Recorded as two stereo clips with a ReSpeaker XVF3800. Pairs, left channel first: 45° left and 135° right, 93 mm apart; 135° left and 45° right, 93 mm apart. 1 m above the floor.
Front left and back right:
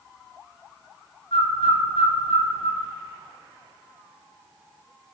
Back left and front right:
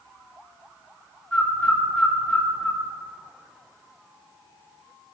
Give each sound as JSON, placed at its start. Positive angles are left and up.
{"t": 1.3, "sound": "a bird", "azimuth_deg": 55, "distance_m": 1.2}